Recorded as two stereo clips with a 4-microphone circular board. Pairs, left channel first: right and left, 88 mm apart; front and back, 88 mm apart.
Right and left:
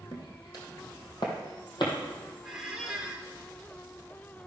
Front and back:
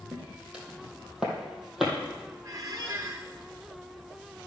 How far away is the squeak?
About 1.5 m.